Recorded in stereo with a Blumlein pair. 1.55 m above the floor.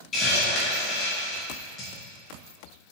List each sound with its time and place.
0.1 s a hiss: 20° left, 2.5 m